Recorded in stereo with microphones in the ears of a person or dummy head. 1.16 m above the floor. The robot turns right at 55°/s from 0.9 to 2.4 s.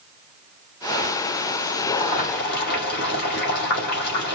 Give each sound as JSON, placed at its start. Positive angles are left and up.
{"t": 1.9, "sound": "boiling", "side_deg": 25, "distance_m": 2.5}